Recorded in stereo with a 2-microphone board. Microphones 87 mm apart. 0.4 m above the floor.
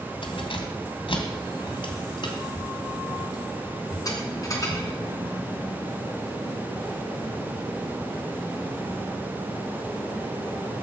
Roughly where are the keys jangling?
Left.